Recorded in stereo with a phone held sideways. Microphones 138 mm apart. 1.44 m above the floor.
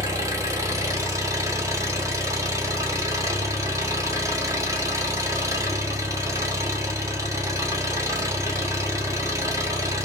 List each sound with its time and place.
0.0 s an engine running: 25° right (ahead or behind), 0.8 m